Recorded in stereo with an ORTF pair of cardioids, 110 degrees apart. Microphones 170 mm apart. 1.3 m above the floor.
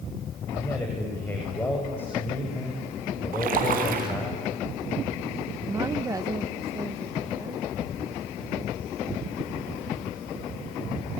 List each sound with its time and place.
0.5 s a man speaking: 10° left, 5.5 m
3.3 s a splash: 60° right, 4 m
5.7 s a woman speaking: 20° right, 0.9 m